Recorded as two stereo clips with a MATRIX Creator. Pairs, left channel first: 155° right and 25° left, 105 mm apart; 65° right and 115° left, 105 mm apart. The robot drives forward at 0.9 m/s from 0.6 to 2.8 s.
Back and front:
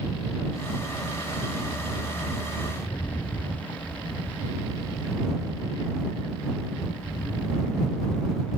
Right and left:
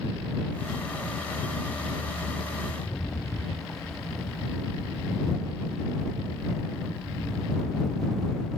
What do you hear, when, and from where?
2.8 s a rattle: 130° right